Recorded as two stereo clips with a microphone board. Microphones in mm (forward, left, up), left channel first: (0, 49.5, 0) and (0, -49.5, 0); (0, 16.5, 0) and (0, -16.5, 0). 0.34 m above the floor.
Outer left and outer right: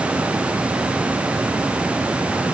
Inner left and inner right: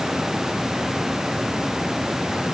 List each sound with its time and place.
Only background noise.